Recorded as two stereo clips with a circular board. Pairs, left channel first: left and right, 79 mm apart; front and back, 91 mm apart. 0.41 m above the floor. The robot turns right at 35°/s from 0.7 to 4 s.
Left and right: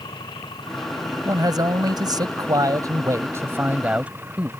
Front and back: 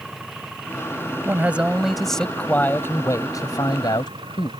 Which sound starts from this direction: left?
An engine running, at 0.0 s.